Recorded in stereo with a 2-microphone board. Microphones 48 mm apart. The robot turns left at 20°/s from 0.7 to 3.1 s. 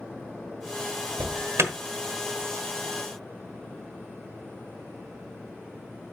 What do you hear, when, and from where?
1.2 s an alarm: 60° right (ahead or behind), 1.0 m; by 1.7 s 65° right (ahead or behind), 1.0 m